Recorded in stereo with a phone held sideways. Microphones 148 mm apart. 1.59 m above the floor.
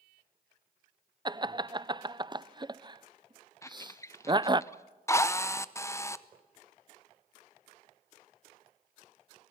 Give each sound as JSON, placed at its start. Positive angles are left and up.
{"t": 1.2, "sound": "laughter", "side_deg": -30, "distance_m": 0.6}
{"t": 3.6, "sound": "a squeak", "side_deg": 20, "distance_m": 0.6}
{"t": 5.1, "sound": "a drill", "side_deg": 20, "distance_m": 0.7}